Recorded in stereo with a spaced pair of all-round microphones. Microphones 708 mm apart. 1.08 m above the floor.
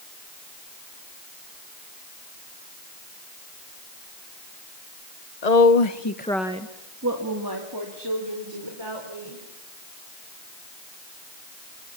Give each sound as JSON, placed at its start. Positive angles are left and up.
{"t": 5.4, "sound": "a woman speaking", "side_deg": 65, "distance_m": 1.2}